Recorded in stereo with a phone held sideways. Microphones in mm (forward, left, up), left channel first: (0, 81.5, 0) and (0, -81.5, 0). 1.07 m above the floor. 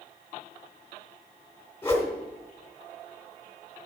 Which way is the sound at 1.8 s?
15° left (ahead or behind).